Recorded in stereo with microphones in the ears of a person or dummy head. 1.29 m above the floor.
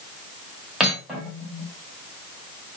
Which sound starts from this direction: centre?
Cutlery clinking, at 0.8 s.